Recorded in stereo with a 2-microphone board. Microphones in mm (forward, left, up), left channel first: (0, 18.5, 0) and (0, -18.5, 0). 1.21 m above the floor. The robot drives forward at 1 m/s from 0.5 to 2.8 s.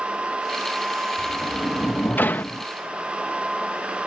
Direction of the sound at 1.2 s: 45° left (ahead or behind).